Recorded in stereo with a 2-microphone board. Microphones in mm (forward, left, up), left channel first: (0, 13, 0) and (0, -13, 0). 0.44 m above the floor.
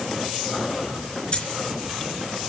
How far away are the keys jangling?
About 4 m.